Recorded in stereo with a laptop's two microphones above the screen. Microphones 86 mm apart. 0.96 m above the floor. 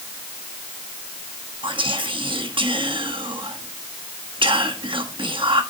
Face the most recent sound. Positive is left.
turn(degrees=-70)  # may be behind; listen again after turning